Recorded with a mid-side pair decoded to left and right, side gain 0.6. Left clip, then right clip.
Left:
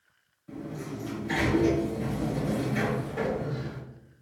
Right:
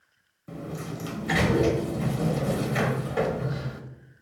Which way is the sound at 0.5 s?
55° right.